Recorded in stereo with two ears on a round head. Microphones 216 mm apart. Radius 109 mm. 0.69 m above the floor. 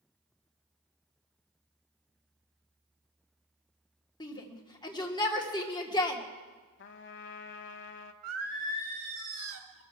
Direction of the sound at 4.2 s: 20° left (ahead or behind).